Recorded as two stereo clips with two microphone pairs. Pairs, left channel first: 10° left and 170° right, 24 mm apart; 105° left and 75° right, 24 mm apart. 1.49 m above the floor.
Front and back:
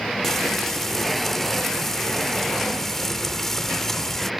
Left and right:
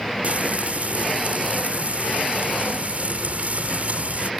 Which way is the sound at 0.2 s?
65° right.